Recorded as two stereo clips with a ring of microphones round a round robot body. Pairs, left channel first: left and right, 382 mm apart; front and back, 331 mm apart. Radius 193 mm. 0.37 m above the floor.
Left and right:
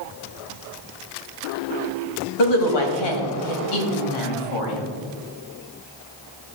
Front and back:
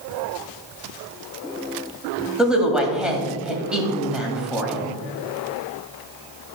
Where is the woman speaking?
90° left, 2 m.